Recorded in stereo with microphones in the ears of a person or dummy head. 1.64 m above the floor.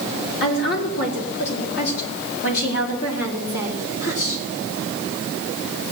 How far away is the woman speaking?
About 4 m.